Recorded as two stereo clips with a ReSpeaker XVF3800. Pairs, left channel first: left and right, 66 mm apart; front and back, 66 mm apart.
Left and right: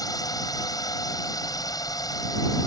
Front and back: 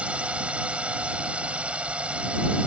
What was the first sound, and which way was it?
A drone, 110° left.